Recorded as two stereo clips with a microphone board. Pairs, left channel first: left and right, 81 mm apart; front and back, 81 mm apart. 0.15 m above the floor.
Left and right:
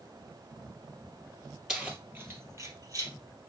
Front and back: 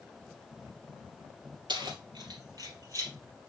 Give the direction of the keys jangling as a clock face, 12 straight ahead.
6 o'clock.